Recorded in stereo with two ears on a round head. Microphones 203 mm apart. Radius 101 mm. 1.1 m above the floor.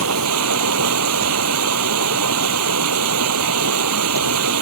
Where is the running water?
75° right (ahead or behind).